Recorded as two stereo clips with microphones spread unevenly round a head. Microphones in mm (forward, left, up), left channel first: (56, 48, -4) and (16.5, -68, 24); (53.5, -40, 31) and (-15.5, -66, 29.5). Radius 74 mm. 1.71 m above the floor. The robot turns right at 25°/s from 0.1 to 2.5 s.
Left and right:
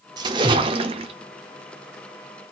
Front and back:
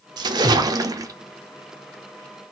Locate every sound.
0.2 s a splash: 150° right, 0.5 m; by 1.1 s 125° right, 0.5 m